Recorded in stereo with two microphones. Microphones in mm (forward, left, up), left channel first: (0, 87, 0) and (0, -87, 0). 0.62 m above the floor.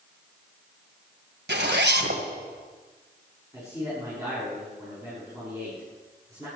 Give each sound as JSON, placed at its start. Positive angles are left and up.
{"t": 1.5, "sound": "a zipper", "side_deg": -80, "distance_m": 1.9}
{"t": 3.5, "sound": "a man speaking", "side_deg": -15, "distance_m": 7.0}